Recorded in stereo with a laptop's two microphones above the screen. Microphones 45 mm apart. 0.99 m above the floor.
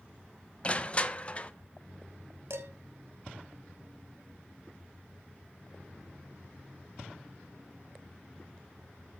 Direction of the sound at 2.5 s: 80° right.